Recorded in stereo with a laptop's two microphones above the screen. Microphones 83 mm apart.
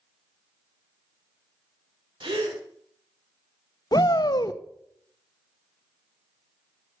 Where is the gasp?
80° right, 3.5 m.